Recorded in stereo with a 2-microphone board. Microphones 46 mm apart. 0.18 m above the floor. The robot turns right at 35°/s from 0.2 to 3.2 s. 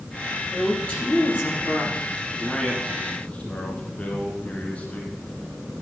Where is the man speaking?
10° left (ahead or behind), 2.5 m; by 5.1 s 35° left (ahead or behind), 2.5 m.